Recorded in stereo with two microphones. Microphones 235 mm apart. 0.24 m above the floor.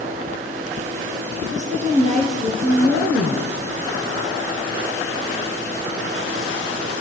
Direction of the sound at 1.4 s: 30° right (ahead or behind).